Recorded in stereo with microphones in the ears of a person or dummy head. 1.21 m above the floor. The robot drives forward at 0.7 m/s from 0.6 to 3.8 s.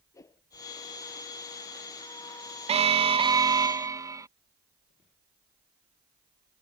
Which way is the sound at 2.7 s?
35° right (ahead or behind).